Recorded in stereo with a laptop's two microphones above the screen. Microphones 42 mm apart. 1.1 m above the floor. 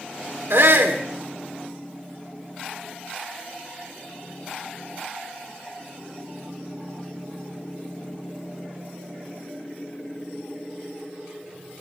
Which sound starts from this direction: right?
A shout, at 0.5 s.